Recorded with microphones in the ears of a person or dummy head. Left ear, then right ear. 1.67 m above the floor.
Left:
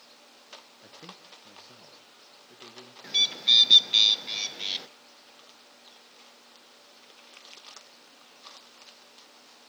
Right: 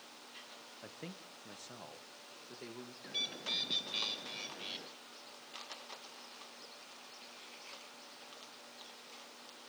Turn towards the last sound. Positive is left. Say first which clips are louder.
# left 16 dB
turn(degrees=40)  # may be behind; listen again after turning